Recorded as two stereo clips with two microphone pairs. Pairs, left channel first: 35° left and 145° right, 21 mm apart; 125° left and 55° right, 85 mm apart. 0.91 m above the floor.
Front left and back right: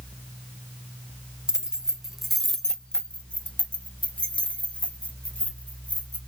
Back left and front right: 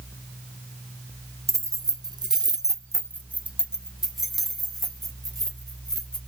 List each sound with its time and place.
1.5 s keys jangling: 100° right, 0.9 m; by 6.2 s 40° left, 2.5 m